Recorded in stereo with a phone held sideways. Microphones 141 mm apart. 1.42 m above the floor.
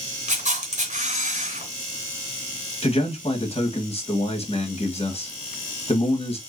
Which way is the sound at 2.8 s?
45° left (ahead or behind).